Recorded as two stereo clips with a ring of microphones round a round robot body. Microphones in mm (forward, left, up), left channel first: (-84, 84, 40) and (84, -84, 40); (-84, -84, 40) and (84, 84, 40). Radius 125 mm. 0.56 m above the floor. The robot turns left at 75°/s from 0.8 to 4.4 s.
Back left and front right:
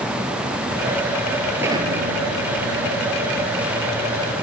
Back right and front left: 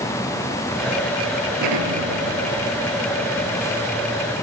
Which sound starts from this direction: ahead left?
An explosion, at 1.6 s.